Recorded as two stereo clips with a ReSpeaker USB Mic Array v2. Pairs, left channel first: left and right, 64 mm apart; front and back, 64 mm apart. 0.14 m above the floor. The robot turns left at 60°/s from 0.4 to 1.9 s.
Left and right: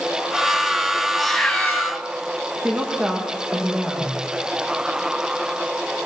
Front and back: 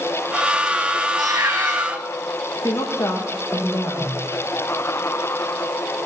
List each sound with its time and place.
1.2 s a cat meowing: straight behind, 3 m; by 2.0 s 135° left, 3 m
2.6 s a woman speaking: 30° right, 7 m